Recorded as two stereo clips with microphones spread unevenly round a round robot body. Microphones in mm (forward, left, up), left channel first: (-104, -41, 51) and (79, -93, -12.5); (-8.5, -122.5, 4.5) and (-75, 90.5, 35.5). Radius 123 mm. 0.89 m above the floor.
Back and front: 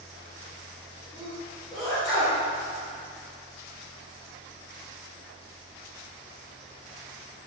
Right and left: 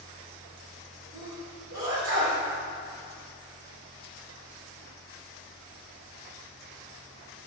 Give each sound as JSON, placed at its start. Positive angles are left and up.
{"t": 1.1, "sound": "a sneeze", "azimuth_deg": 70, "distance_m": 3.5}